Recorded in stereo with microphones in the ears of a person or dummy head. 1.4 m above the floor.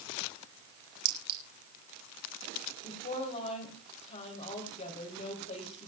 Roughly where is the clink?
Right.